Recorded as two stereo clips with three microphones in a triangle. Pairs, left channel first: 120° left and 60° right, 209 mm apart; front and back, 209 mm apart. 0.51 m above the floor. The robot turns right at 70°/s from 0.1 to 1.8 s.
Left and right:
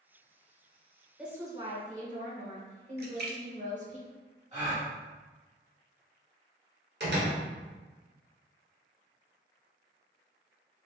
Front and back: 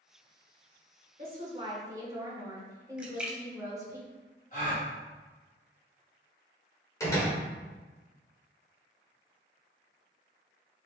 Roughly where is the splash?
Right.